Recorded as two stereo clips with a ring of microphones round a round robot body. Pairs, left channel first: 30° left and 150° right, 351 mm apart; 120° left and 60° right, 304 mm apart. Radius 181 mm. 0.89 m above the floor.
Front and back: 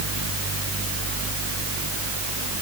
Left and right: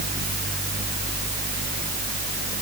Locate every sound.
Only background noise.